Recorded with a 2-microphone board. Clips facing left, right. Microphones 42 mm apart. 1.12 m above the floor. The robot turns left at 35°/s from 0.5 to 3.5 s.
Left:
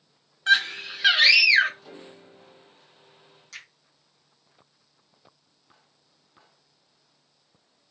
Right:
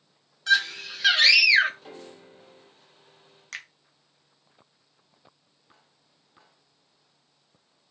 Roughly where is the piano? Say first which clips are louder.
Right 1 dB; right.